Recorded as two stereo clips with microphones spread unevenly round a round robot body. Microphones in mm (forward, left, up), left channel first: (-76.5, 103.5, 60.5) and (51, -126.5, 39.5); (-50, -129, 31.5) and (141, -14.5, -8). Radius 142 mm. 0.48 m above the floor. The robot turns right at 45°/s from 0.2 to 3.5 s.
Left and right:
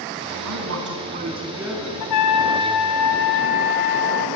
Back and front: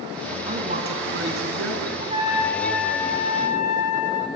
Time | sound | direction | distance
0.5 | a man speaking | 30° right | 4 m
2.0 | a trumpet | 100° left | 1.5 m